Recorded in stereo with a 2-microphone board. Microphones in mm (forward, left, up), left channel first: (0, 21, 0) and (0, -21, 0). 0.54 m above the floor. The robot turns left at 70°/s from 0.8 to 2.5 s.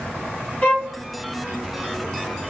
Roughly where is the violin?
Left.